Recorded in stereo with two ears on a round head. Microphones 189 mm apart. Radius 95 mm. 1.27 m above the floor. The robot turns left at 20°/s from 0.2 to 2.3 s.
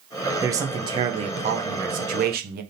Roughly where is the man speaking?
Ahead.